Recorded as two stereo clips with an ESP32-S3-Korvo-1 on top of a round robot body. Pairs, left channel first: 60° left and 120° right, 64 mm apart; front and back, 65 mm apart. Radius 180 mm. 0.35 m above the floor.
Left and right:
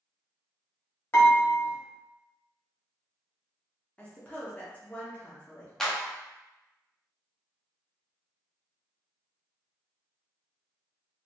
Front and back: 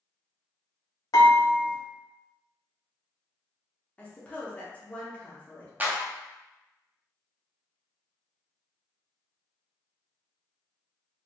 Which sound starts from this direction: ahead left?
A woman speaking, at 4.0 s.